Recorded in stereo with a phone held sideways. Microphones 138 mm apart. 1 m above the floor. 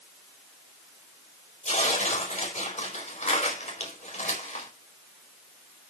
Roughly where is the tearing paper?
Left.